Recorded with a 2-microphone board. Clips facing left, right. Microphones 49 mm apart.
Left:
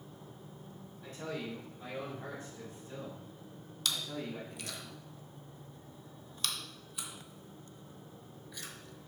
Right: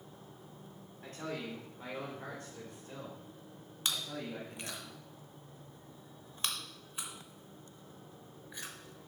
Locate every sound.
1.0 s a man speaking: 45° right (ahead or behind), 3.5 m; by 4.8 s 80° right, 6 m
3.9 s chewing: 30° right (ahead or behind), 1.1 m